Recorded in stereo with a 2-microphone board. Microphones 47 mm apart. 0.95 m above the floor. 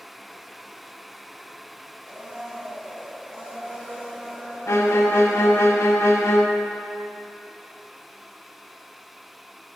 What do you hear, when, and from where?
2.0 s a blender: 30° right (ahead or behind), 2.5 m
4.7 s a violin: 70° left (ahead or behind), 0.6 m